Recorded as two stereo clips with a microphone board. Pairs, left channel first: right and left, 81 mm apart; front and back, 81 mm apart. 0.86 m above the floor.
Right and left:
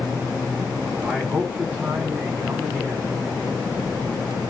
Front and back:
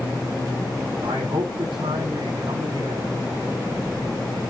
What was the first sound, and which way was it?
A man speaking, 155° left.